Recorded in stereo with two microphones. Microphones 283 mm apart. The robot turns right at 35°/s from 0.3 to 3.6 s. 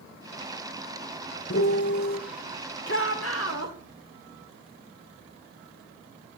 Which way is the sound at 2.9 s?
40° left (ahead or behind).